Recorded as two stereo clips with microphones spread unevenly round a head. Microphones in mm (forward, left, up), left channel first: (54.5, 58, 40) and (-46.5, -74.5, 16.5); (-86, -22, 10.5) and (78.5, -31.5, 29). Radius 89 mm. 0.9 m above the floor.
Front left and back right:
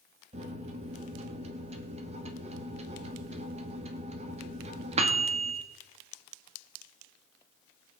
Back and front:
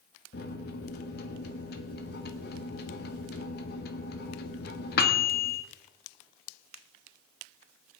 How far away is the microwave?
About 1.5 m.